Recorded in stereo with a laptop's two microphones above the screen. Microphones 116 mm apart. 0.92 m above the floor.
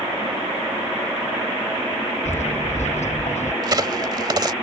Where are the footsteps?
75° left (ahead or behind); by 3.5 s 80° left.